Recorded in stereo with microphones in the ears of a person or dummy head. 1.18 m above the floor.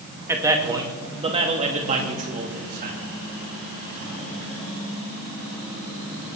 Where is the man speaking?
5° right (ahead or behind), 1.7 m; by 3.0 s 40° right (ahead or behind), 2.5 m.